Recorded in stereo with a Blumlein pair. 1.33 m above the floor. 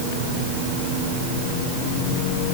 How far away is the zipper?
I don't hear a zipper.